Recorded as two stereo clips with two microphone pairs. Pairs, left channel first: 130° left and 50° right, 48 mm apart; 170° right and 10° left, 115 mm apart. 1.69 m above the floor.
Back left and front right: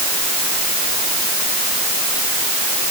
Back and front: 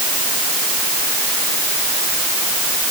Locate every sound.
Only background noise.